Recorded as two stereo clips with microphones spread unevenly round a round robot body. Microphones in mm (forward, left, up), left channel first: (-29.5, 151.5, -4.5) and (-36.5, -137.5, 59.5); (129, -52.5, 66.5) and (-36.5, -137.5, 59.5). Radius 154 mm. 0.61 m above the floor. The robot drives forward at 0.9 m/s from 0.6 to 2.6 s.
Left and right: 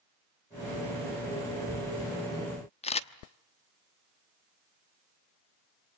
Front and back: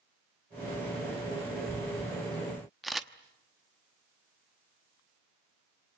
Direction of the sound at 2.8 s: 120° left.